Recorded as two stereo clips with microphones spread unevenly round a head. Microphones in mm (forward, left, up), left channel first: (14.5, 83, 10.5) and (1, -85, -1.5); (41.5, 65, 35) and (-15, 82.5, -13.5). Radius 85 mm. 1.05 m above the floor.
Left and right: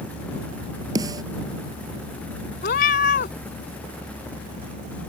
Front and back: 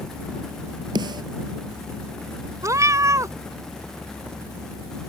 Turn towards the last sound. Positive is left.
turn(degrees=100)